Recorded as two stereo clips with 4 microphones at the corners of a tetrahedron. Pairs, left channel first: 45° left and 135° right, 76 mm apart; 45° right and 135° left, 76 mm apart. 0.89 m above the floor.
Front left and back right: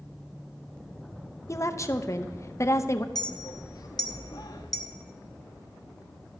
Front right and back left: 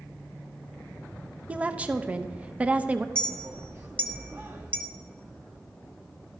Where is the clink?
75° left, 1.0 m.